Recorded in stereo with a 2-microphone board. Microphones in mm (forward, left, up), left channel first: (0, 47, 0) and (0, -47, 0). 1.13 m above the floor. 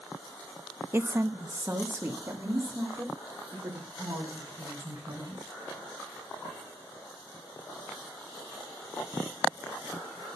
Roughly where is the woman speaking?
Right.